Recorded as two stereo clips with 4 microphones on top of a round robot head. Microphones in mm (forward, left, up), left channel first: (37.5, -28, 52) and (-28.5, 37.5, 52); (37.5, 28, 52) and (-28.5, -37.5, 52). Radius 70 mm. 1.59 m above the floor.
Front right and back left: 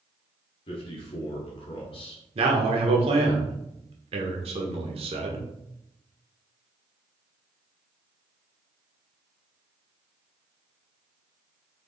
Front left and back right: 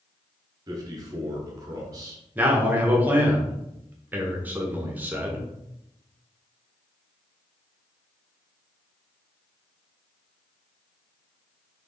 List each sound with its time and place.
0.7 s a man speaking: 80° right, 1.2 m
2.4 s a man speaking: 150° left, 1.1 m